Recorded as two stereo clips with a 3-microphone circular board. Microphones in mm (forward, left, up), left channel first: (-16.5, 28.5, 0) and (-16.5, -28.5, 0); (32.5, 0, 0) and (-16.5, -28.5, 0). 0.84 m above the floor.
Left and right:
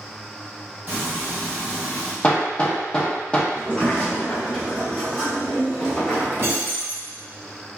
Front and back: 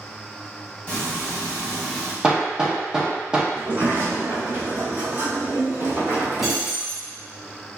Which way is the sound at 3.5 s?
165° left.